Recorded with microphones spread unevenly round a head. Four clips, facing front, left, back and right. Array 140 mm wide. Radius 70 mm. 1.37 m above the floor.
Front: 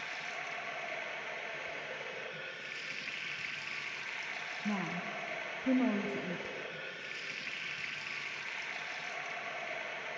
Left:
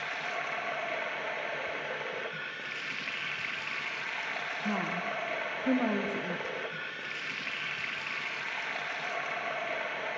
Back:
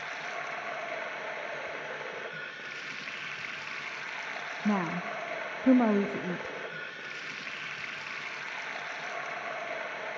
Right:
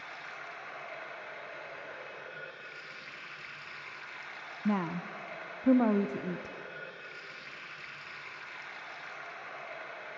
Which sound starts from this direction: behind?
A woman speaking, at 4.7 s.